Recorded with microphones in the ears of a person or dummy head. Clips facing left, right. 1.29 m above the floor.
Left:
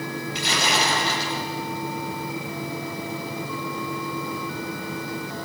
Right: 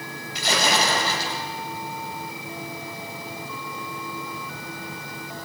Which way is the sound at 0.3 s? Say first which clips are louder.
Right 3 dB; 35° right (ahead or behind).